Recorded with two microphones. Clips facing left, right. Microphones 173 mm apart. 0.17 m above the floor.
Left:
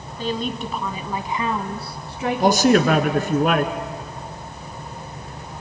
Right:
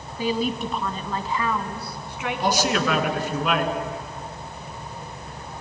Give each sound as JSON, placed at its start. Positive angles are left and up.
{"t": 0.2, "sound": "a woman speaking", "side_deg": -10, "distance_m": 1.2}
{"t": 2.4, "sound": "a man speaking", "side_deg": 50, "distance_m": 1.6}